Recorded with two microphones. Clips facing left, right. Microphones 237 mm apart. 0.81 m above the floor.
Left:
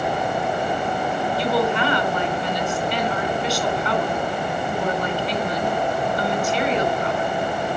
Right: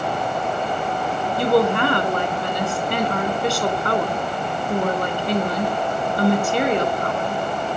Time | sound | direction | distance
1.4 | a woman speaking | 50° right (ahead or behind) | 3.5 m